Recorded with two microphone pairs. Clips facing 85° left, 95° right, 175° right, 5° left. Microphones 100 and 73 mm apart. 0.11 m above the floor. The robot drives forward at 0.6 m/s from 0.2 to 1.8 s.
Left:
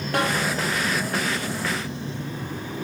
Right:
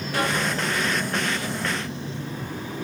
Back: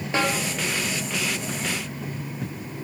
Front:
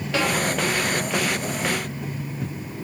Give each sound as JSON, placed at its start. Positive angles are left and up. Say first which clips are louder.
{"t": 0.1, "sound": "a snare drum", "louder": "left 2 dB, even", "azimuth_deg": 120, "distance_m": 4.0}